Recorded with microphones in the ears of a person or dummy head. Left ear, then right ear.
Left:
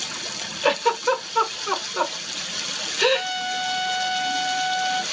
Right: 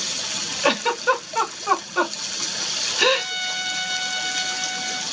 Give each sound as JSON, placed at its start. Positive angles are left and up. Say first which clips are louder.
{"t": 0.6, "sound": "a giggle", "louder": "even", "side_deg": -15, "distance_m": 1.5}
{"t": 3.1, "sound": "a trumpet", "louder": "even", "side_deg": -15, "distance_m": 3.5}